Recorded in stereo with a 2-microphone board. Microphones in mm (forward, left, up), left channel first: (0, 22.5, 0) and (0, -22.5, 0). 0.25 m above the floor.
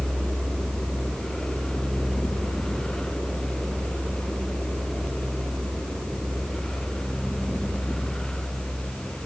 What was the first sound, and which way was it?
Only background noise.